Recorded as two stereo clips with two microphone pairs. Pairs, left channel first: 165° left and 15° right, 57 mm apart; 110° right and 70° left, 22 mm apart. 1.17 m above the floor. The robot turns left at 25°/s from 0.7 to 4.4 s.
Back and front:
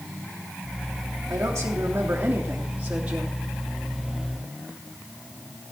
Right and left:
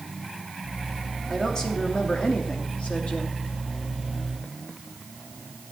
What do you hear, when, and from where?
1.3 s a woman speaking: 40° right, 3 m; by 3.4 s 90° right, 3 m